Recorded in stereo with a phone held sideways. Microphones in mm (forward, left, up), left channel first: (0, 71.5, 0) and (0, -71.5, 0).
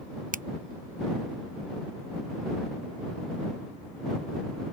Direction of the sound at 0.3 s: 70° right (ahead or behind).